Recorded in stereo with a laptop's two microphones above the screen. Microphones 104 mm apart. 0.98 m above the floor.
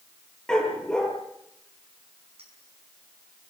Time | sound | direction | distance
0.5 | a dog barking | 5° left (ahead or behind) | 5.5 m
2.4 | a clink | 70° right (ahead or behind) | 6 m